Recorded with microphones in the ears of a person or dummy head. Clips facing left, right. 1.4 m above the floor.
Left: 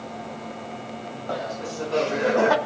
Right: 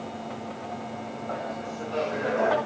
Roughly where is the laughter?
Left.